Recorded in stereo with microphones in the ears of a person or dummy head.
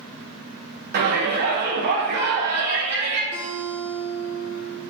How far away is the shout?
About 0.8 m.